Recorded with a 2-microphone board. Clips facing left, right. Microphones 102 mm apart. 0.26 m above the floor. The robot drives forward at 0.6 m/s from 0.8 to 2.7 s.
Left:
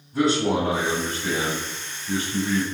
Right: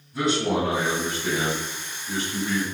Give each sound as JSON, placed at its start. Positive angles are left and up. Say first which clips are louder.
{"t": 0.1, "sound": "a man speaking", "louder": "left 2 dB", "side_deg": 35, "distance_m": 1.5}